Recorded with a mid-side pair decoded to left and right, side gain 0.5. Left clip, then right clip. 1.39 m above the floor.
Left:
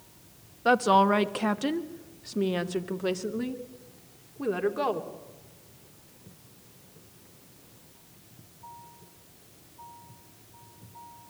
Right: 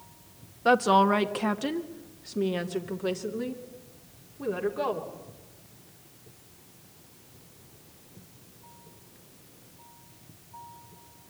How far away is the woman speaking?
About 1.5 m.